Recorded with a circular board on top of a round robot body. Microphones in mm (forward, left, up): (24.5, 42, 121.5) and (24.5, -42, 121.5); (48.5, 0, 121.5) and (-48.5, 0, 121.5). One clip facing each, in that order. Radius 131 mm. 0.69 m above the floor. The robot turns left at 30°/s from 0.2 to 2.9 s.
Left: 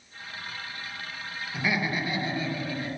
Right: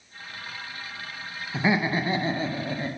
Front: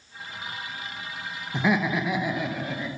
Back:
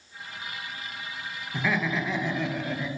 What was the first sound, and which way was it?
Laughter, 50° right.